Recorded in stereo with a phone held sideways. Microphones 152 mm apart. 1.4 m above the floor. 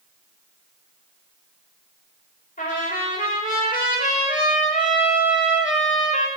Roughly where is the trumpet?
Left.